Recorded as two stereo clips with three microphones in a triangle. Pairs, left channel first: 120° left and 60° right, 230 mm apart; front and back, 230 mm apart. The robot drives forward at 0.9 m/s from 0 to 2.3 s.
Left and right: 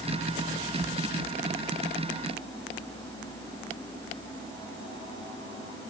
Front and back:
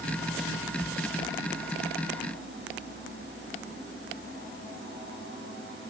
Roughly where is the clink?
I don't hear a clink.